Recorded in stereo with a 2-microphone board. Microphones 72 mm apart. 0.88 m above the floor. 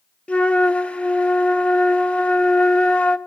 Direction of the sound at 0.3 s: 15° left (ahead or behind).